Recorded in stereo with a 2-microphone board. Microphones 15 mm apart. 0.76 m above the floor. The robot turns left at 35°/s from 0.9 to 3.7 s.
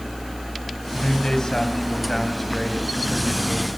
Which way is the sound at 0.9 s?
60° left.